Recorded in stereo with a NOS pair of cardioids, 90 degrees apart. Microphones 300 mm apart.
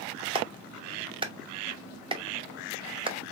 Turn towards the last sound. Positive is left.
turn(degrees=-15)